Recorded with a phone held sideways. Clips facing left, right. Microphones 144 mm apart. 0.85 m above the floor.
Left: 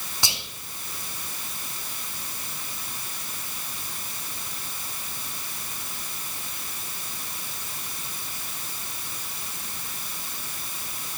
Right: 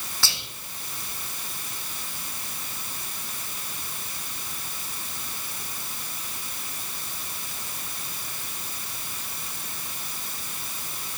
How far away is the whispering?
About 0.9 m.